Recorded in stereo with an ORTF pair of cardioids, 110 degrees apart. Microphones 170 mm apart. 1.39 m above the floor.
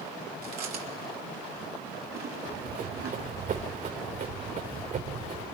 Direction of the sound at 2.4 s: 50° right.